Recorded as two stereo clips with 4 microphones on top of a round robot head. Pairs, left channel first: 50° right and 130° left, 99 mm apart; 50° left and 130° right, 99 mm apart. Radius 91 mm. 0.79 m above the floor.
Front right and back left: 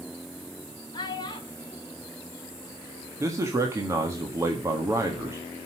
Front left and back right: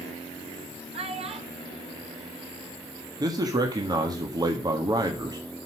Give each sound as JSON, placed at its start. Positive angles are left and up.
{"t": 0.9, "sound": "a child speaking", "azimuth_deg": -100, "distance_m": 1.6}
{"t": 3.2, "sound": "a man speaking", "azimuth_deg": -175, "distance_m": 1.5}